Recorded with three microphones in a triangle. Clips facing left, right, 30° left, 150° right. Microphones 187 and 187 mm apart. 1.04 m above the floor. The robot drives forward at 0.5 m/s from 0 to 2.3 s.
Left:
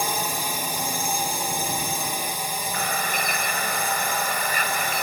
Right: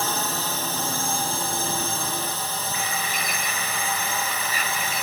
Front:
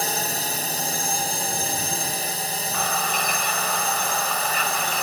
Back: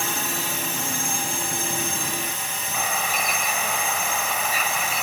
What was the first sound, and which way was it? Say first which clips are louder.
A drone: even, front 1 dB; 20° left.